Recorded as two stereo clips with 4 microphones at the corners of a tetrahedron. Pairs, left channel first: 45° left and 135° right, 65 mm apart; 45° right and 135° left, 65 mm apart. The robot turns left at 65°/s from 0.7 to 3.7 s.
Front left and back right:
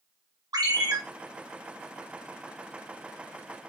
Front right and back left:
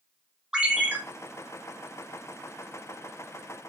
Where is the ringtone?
145° right, 1.0 m; by 1.0 s 165° right, 1.0 m.